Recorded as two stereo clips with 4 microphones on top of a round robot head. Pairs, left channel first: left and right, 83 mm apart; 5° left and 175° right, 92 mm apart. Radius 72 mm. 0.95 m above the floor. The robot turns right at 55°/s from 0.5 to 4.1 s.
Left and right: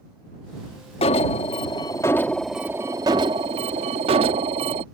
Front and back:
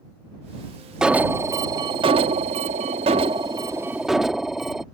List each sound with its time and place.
1.0 s an alarm: 100° left; by 4.8 s 90° right